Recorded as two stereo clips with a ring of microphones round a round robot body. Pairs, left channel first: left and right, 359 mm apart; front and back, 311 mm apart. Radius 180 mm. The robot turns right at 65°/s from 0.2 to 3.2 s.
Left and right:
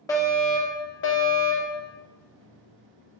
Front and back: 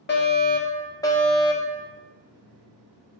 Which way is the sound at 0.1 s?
15° left.